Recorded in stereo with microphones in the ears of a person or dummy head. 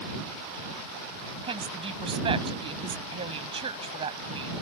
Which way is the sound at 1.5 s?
35° right (ahead or behind).